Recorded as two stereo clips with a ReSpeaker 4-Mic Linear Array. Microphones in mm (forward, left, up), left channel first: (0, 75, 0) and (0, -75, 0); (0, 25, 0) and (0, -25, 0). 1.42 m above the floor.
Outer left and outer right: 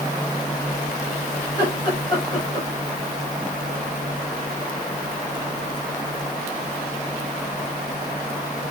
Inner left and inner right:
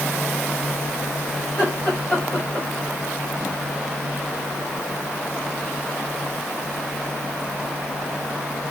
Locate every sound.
1.4 s laughter: 25° left (ahead or behind), 7 m